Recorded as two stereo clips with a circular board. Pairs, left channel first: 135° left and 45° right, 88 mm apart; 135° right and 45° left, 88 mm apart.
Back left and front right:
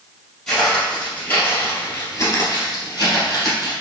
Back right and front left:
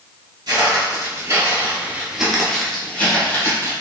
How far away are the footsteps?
About 1.7 m.